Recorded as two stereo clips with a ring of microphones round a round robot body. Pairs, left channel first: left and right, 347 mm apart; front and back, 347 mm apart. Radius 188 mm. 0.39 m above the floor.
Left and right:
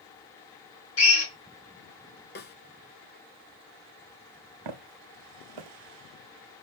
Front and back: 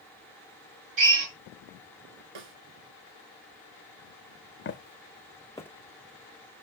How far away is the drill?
About 4 m.